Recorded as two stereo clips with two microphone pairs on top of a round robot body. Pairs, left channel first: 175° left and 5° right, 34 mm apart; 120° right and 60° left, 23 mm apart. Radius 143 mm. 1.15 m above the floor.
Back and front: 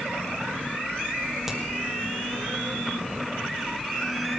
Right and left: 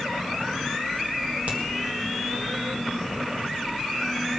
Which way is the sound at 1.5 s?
80° left.